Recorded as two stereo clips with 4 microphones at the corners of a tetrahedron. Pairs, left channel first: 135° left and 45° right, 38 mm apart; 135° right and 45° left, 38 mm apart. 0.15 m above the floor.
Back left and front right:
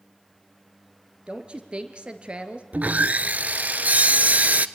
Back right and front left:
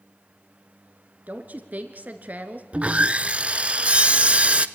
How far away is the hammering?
No hammering in this recording.